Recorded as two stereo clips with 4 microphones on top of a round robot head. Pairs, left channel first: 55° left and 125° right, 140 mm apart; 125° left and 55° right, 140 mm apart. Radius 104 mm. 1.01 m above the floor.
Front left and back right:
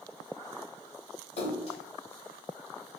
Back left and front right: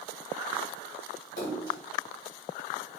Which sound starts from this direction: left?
A splash, at 1.4 s.